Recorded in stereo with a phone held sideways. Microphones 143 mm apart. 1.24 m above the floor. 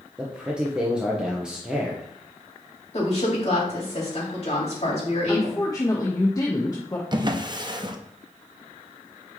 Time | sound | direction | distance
0.2 | a man speaking | 5° right (ahead or behind) | 1.0 m
2.9 | a woman speaking | 45° left (ahead or behind) | 2.5 m
5.3 | a woman speaking | 25° left (ahead or behind) | 0.9 m
7.1 | a drawer | 30° right (ahead or behind) | 0.6 m